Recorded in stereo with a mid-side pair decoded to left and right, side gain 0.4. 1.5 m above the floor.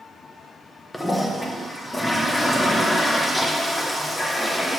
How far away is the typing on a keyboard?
No typing on a keyboard in this recording.